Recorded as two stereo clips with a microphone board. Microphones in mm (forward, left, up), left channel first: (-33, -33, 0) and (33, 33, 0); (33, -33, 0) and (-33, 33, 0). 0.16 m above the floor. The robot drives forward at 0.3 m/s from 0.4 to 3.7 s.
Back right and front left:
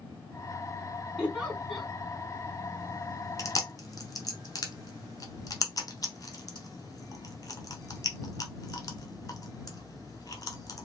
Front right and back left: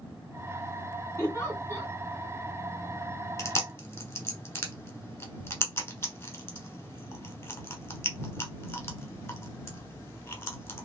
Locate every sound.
1.2 s a giggle: 35° right, 1.5 m; by 1.9 s 50° right, 1.5 m
3.4 s chewing: 95° right, 0.9 m; by 10.8 s 100° right, 0.9 m